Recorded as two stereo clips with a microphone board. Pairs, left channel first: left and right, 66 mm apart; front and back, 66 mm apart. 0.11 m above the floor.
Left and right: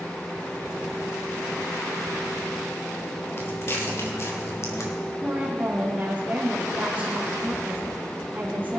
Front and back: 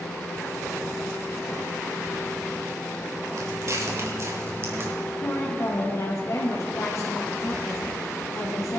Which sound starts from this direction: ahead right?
A woman speaking, at 5.2 s.